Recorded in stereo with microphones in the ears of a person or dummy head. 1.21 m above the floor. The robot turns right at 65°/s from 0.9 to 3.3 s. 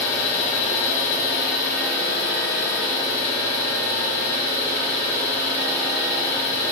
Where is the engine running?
55° left, 1.5 m; by 6.7 s 150° right, 1.5 m.